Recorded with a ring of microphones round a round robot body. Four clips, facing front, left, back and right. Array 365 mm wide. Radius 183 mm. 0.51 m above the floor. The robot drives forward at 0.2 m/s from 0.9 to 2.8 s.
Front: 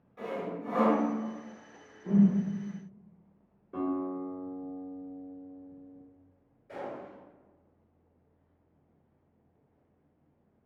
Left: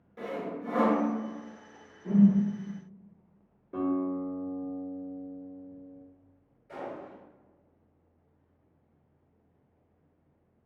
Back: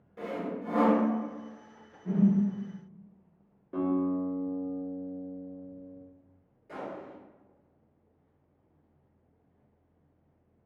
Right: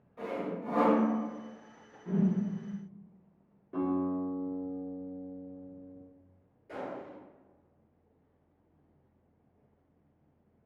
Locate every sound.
0.2 s sawing: 130° left, 0.9 m
2.0 s a whoosh: 95° left, 1.1 m; by 2.4 s 100° left, 1.1 m
3.7 s a guitar: 170° left, 1.3 m
6.7 s a gunshot: 135° right, 1.9 m